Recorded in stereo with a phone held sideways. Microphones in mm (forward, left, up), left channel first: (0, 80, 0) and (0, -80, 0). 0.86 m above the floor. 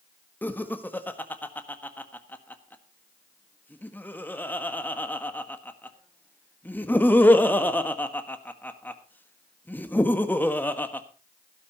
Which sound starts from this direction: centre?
Laughter, at 0.4 s.